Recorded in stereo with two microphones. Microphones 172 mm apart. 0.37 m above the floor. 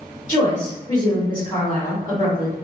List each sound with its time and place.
0.3 s a woman speaking: 25° left (ahead or behind), 1.5 m